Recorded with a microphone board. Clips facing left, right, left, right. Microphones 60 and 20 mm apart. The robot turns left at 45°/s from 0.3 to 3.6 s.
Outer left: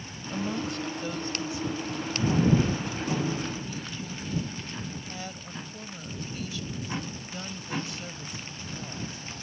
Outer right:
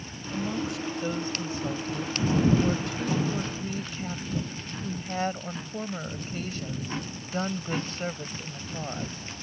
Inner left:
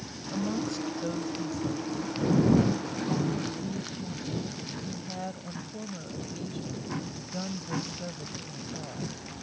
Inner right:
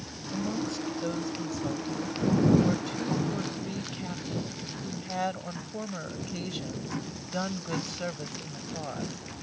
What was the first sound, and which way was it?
A woman speaking, 15° left.